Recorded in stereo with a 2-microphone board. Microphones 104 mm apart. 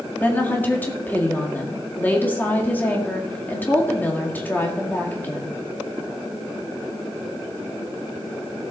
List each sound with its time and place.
0.2 s a woman speaking: 15° left (ahead or behind), 1.8 m